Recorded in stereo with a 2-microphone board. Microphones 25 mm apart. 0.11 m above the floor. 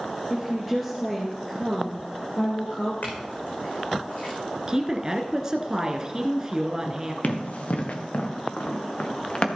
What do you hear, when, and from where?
0.3 s a woman speaking: 10° right (ahead or behind), 2.5 m; by 2.9 s 40° left (ahead or behind), 2.5 m
3.0 s a clink: 75° left (ahead or behind), 4.5 m
4.7 s a woman speaking: 25° right (ahead or behind), 1.2 m
7.2 s running footsteps: 75° left (ahead or behind), 2.5 m; by 9.5 s 35° left (ahead or behind), 2.5 m